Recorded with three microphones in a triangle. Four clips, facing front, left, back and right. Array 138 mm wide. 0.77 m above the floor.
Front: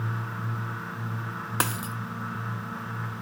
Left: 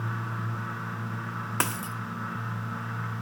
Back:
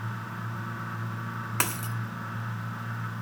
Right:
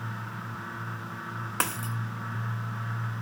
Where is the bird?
No bird in this recording.